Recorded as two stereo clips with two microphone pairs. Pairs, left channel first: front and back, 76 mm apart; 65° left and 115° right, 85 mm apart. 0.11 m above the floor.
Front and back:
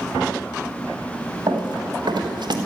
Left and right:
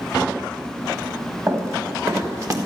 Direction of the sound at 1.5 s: 165° right.